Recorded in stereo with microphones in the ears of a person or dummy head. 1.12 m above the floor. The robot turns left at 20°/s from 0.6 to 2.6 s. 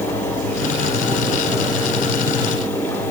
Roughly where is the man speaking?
No man speaking in this recording.